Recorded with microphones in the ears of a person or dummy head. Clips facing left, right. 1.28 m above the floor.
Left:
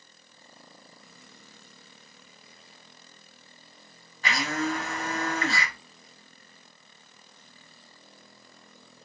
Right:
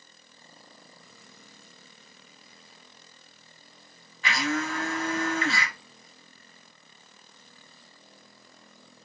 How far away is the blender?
About 0.7 m.